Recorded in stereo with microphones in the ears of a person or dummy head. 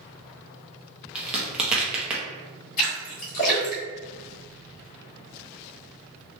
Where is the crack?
10° right (ahead or behind), 0.7 m.